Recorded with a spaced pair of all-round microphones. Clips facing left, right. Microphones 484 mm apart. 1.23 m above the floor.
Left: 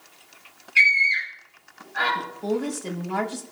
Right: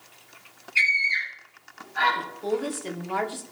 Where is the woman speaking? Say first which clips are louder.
Left 2 dB; 60° left (ahead or behind), 1.9 m.